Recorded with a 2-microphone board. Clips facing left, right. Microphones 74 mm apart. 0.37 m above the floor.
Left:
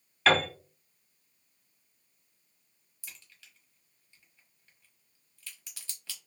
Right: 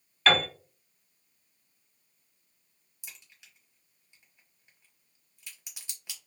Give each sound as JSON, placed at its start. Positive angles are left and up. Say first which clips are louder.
{"t": 0.3, "sound": "a piano", "louder": "even", "side_deg": 0, "distance_m": 1.2}
{"t": 3.0, "sound": "a crack", "louder": "even", "side_deg": -20, "distance_m": 1.1}